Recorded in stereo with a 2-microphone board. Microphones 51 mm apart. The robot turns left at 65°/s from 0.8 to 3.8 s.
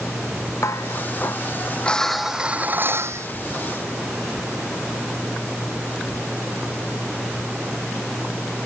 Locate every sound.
0.6 s dishes clattering: 90° left; by 3.3 s 70° right